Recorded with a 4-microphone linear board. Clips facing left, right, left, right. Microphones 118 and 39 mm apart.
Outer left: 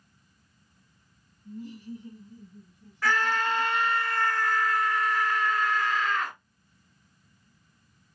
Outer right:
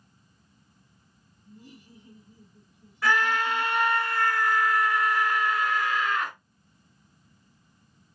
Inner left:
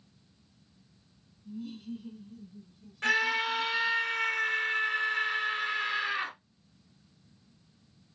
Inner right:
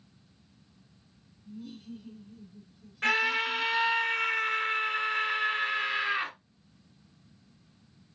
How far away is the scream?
About 1.3 m.